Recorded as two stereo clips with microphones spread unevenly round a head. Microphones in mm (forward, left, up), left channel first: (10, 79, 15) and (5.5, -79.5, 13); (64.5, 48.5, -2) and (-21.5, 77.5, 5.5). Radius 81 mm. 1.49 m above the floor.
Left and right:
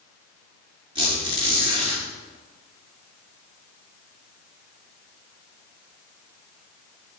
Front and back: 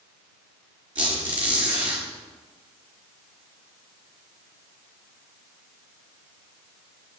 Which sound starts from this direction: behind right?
A squeak, at 0.9 s.